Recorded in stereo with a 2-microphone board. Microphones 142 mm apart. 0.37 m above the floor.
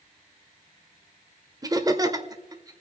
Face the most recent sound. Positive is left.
turn(degrees=-25)  # may be behind; listen again after turning